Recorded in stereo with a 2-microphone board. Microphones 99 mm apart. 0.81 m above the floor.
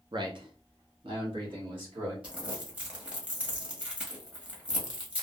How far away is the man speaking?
About 0.6 m.